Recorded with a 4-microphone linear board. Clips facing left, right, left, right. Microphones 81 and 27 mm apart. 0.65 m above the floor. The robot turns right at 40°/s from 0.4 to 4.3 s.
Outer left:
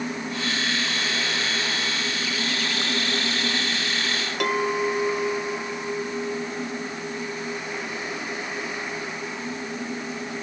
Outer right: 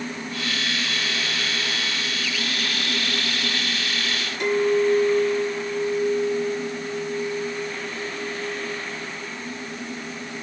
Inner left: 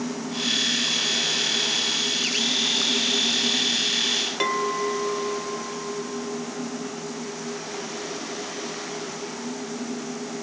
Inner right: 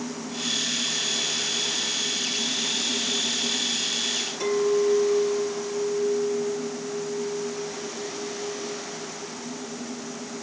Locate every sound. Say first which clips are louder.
4.4 s a clink: outer right 5 dB, inner right 2 dB; 80° left, 1.6 m